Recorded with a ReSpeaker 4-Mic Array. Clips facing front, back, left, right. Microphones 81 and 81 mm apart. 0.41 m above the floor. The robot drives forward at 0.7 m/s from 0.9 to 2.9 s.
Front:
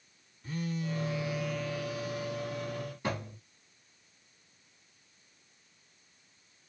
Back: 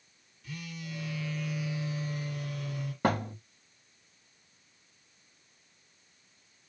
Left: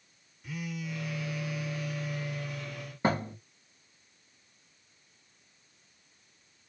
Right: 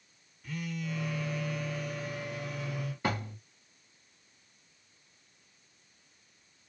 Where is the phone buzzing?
10° left, 0.7 m; by 2.9 s 175° left, 1.1 m.